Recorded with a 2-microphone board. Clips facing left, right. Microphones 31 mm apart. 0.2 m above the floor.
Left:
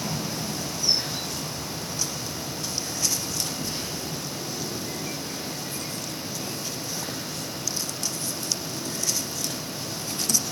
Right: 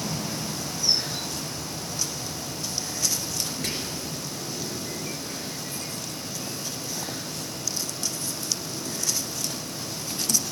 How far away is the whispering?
About 4 m.